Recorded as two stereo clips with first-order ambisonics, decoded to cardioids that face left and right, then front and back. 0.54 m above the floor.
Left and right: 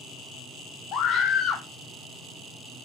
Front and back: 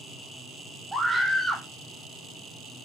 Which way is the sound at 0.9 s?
100° left.